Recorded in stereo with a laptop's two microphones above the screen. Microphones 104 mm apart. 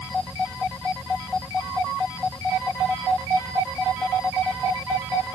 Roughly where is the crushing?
I don't hear crushing.